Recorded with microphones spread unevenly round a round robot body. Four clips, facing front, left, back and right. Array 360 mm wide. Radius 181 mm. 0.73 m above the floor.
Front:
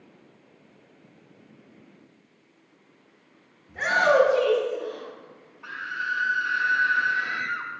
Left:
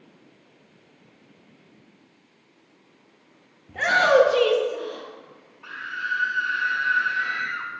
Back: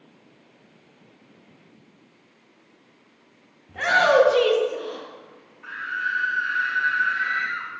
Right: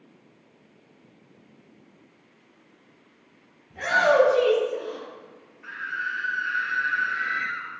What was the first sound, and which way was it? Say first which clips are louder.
A shout: left 2 dB, back 2 dB; 100° left.